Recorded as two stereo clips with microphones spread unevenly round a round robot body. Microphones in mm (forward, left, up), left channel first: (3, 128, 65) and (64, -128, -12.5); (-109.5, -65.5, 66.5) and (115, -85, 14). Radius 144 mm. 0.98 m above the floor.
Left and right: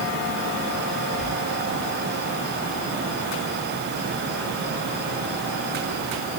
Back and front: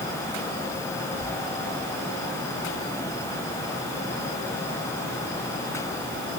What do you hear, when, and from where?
Only background noise.